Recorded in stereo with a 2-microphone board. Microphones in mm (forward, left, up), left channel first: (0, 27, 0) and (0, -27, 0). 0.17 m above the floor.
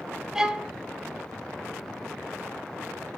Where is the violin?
10° right (ahead or behind), 1.6 m.